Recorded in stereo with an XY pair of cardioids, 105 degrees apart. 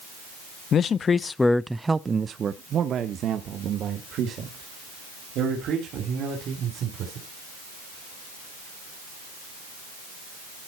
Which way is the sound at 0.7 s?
60° left.